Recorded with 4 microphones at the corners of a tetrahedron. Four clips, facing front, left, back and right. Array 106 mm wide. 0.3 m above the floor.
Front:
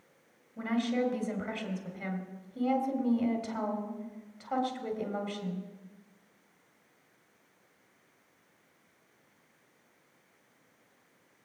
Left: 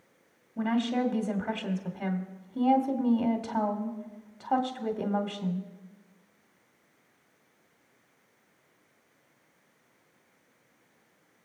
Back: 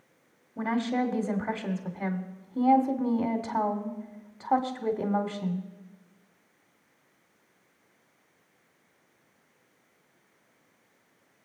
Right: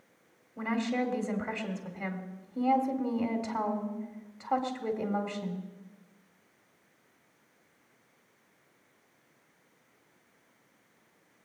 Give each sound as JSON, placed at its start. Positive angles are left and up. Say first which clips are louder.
{"t": 0.6, "sound": "a woman speaking", "louder": "left 3 dB, back 3 dB", "azimuth_deg": 150, "distance_m": 2.0}